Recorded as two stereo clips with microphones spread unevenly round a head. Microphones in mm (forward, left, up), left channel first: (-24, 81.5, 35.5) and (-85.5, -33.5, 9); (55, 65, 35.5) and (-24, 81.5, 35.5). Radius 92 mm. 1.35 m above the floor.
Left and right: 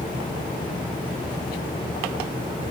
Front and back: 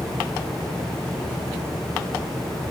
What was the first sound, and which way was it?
Only background noise.